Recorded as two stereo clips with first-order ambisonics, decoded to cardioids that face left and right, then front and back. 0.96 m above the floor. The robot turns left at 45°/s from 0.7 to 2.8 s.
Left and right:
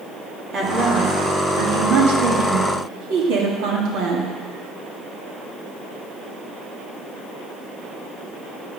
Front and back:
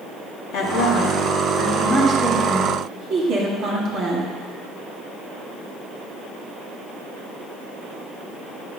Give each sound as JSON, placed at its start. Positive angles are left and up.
{"t": 0.5, "sound": "a woman speaking", "azimuth_deg": -30, "distance_m": 1.9}